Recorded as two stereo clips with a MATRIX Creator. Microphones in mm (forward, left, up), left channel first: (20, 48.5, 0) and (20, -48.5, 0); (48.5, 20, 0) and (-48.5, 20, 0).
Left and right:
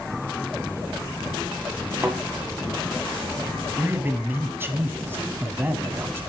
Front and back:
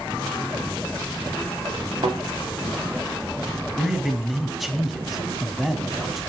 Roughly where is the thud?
Behind right.